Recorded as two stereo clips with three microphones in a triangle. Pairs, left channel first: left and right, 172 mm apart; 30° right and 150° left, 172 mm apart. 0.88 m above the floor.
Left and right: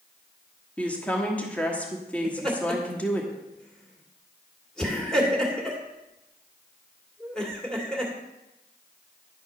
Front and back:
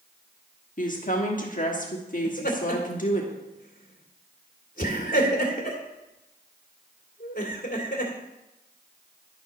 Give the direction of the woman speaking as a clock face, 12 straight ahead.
12 o'clock.